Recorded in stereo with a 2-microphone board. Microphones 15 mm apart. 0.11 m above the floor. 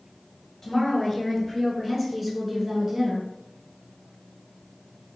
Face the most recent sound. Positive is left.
turn(degrees=-25)  # may be behind; listen again after turning